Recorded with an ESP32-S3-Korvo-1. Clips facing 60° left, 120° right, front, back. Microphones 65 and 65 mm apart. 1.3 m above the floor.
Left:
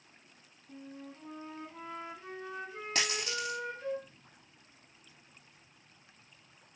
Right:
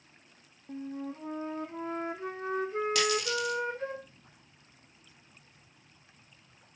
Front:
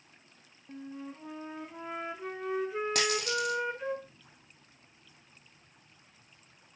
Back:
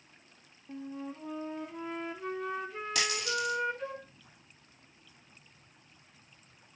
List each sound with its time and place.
0.7 s a flute: 85° right, 1.0 m
3.0 s a dropped coin: 15° left, 2 m